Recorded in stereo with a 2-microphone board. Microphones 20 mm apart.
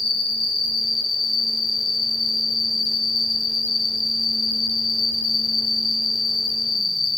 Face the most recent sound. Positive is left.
turn(degrees=50)  # may be behind; listen again after turning